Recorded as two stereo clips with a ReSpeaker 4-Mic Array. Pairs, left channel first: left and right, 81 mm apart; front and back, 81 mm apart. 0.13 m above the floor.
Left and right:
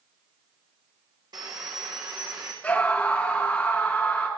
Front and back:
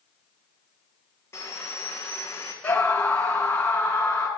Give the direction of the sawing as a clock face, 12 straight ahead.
2 o'clock.